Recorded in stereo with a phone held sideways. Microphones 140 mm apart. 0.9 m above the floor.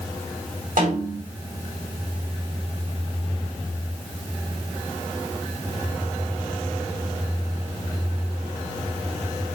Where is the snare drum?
75° right (ahead or behind), 3 m.